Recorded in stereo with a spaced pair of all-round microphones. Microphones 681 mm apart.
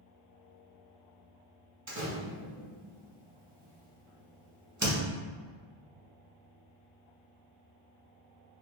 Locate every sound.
1.9 s a door slam: 25° right (ahead or behind), 0.8 m